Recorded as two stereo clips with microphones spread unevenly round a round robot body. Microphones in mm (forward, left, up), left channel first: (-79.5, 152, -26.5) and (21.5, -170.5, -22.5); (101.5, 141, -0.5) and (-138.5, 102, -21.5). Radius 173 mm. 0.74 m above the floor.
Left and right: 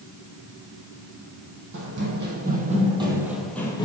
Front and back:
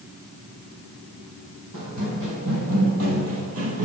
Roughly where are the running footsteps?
Behind right.